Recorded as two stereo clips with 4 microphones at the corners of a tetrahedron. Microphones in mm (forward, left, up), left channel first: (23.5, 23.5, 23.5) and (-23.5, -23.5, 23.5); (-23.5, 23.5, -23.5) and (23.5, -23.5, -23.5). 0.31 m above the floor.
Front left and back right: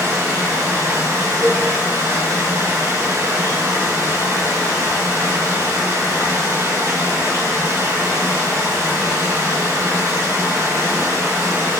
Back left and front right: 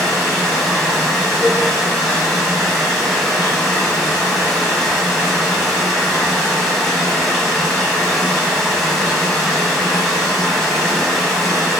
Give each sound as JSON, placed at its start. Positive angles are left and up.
{"t": 0.0, "sound": "running water", "azimuth_deg": -140, "distance_m": 1.4}
{"t": 1.4, "sound": "a cowbell", "azimuth_deg": -5, "distance_m": 1.5}